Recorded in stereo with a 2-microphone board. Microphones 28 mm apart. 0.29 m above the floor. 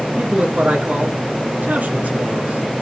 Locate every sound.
0.1 s a man speaking: 65° right (ahead or behind), 3 m